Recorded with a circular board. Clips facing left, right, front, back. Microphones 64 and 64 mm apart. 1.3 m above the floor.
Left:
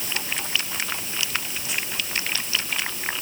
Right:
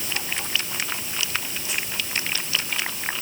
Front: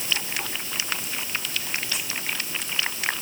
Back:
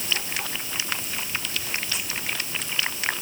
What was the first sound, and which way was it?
Only background noise.